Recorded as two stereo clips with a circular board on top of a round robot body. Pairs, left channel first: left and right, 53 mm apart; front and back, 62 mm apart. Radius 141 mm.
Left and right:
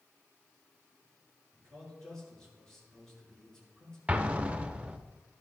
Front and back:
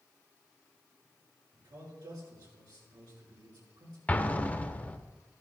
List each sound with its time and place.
1.5 s a man speaking: 170° left, 6 m
4.1 s an explosion: 45° right, 1.0 m